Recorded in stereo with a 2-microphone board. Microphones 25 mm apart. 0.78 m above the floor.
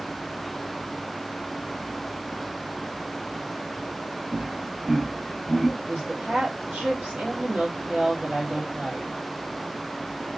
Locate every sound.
4.3 s laughter: 25° right (ahead or behind), 0.5 m; by 5.7 s 5° right (ahead or behind), 1.9 m
5.8 s a woman speaking: 60° right (ahead or behind), 2.5 m